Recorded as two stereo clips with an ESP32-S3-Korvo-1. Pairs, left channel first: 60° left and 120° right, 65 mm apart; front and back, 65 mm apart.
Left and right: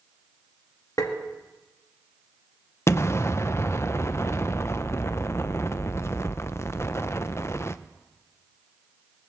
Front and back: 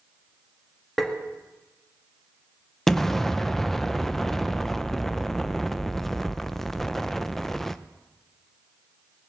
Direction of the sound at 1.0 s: 90° left.